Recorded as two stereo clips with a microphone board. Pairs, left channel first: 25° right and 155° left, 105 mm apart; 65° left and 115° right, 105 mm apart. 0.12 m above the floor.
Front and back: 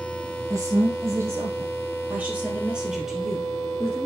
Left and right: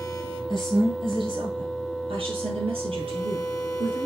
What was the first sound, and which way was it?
A woman speaking, 145° right.